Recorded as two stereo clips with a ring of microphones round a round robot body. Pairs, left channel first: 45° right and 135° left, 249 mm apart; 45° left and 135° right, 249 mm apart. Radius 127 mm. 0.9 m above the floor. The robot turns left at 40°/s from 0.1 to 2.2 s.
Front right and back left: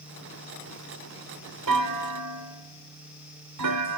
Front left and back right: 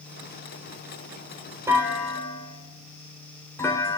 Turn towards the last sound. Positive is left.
turn(degrees=125)